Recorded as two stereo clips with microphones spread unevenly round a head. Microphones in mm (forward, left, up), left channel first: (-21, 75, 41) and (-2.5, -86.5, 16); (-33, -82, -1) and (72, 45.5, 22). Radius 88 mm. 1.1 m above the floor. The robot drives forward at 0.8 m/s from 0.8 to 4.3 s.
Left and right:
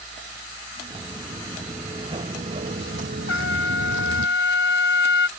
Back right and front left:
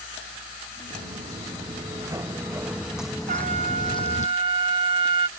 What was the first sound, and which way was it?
Footsteps, 10° right.